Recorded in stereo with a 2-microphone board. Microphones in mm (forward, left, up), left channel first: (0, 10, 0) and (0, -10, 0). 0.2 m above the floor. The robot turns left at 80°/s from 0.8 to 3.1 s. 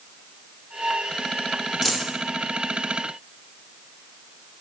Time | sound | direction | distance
1.8 | a dropped coin | 5° right (ahead or behind) | 0.8 m